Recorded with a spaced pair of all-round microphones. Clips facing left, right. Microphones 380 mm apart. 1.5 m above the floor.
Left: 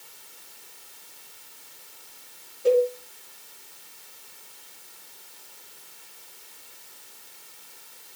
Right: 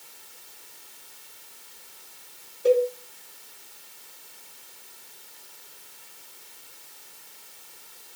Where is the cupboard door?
No cupboard door in this recording.